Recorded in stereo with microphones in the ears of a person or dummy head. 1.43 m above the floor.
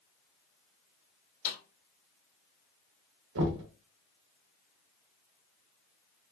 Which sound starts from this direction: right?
Knocking, at 3.4 s.